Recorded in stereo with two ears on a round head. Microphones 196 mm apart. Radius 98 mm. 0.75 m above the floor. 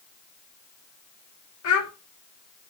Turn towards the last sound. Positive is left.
turn(degrees=75)  # may be behind; listen again after turning